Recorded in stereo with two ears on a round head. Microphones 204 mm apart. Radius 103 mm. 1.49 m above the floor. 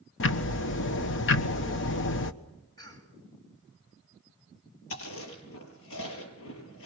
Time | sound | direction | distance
0.2 | ticking | 60° left (ahead or behind) | 1.3 m
2.8 | a cough | 20° left (ahead or behind) | 8.5 m
4.9 | chewing | 70° left (ahead or behind) | 6 m